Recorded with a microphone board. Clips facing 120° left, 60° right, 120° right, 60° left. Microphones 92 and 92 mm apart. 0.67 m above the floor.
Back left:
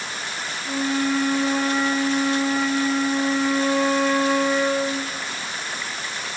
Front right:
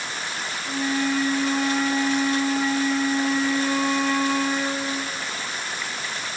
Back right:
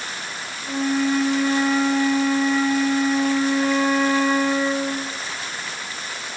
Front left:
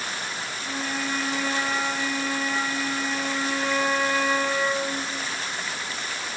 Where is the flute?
160° left, 4 m.